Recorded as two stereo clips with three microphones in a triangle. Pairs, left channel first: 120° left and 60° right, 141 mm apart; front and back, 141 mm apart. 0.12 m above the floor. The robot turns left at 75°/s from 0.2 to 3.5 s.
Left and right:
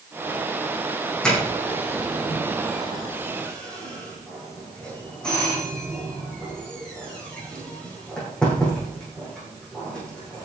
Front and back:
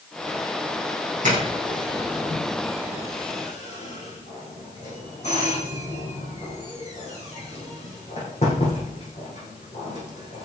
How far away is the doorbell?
About 7.5 m.